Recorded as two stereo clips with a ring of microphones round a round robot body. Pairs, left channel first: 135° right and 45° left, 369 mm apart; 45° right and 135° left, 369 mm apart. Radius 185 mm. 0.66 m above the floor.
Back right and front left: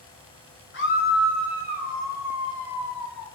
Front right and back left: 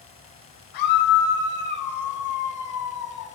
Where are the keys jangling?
No keys jangling in this recording.